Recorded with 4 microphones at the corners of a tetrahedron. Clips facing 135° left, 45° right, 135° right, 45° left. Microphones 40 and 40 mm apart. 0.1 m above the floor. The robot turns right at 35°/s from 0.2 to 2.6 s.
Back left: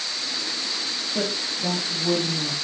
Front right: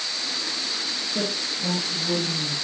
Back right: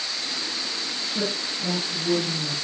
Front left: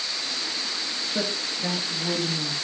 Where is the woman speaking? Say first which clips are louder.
Back left 2 dB, back right 1 dB; 55° left, 2.5 m; by 2.5 s 105° left, 2.5 m.